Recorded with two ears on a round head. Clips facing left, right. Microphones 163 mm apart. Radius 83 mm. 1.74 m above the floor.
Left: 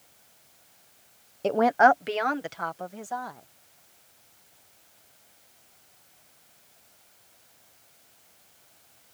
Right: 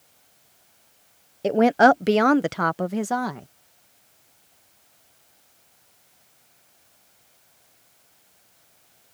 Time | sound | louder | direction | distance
1.4 | a woman speaking | right 4 dB | 15° right (ahead or behind) | ?